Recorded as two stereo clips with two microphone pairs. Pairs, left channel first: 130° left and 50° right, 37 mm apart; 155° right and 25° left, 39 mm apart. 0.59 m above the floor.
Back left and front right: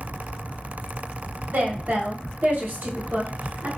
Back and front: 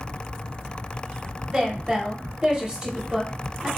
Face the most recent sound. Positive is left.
turn(degrees=-35)